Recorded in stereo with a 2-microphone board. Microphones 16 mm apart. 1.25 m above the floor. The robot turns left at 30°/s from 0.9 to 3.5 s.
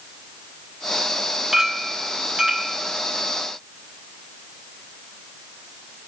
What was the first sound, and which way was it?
A clink, 35° right.